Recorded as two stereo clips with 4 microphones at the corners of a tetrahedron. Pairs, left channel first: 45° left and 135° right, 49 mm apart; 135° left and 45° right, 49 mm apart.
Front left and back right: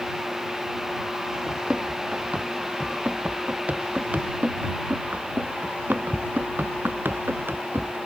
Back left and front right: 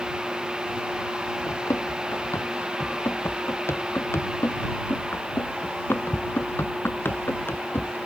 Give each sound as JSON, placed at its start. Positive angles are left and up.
{"t": 1.5, "sound": "running footsteps", "azimuth_deg": 155}